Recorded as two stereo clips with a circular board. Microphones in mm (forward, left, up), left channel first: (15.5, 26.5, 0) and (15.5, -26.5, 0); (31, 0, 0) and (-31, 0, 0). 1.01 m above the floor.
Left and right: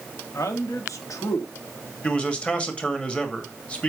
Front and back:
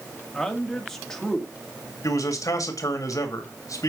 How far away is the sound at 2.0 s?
About 2 m.